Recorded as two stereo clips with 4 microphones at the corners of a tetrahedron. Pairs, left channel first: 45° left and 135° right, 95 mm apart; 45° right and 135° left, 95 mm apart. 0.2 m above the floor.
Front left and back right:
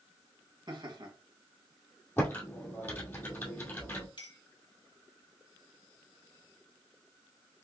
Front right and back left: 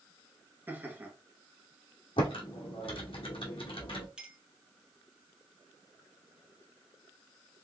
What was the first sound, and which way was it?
Laughter, 160° right.